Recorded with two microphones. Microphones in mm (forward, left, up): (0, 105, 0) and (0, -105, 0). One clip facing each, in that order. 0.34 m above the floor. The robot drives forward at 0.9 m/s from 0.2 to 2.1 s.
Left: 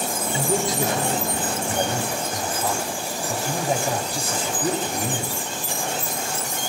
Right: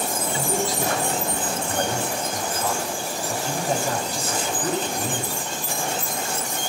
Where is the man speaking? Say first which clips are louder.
Left 3 dB; 20° left (ahead or behind), 1.7 m; by 5.3 s 15° left (ahead or behind), 2.5 m.